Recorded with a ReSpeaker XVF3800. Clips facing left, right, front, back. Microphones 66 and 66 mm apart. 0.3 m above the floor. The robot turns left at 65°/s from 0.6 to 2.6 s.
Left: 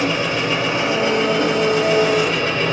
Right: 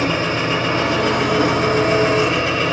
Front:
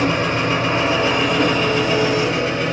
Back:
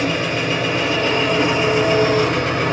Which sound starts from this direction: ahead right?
An engine running, at 0.0 s.